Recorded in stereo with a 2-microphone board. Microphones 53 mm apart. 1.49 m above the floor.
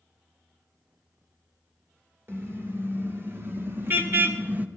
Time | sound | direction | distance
2.3 | a car horn | 50° right (ahead or behind) | 3 m